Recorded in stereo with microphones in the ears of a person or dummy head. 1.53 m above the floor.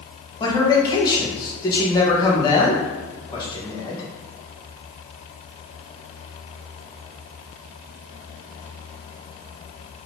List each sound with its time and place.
0.4 s a man speaking: 20° left (ahead or behind), 1.4 m